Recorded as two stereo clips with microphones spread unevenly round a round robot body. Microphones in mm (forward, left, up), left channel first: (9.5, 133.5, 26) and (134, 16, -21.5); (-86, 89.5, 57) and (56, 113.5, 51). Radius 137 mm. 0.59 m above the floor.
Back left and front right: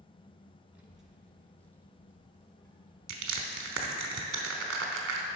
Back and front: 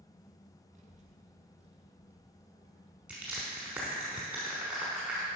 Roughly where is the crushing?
Right.